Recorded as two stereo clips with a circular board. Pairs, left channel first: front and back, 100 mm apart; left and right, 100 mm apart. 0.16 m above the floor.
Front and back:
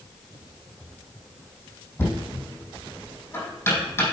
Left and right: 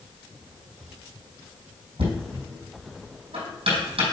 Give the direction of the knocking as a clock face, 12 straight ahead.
2 o'clock.